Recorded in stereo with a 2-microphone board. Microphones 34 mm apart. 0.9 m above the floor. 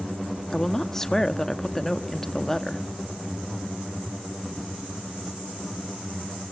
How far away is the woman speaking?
About 1.2 m.